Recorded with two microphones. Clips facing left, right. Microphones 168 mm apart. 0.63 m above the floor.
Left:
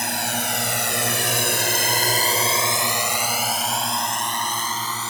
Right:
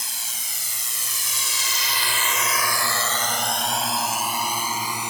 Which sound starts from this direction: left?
A drone, at 0.0 s.